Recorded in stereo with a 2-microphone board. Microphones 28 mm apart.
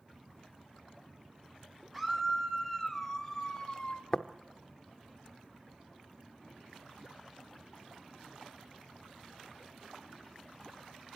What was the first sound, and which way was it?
A scream, 5° right (ahead or behind).